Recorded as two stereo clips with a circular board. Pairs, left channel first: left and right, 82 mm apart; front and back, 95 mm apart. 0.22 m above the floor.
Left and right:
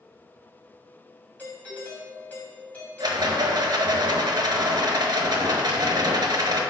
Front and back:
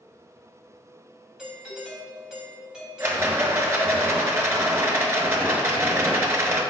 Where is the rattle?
115° right, 0.8 m.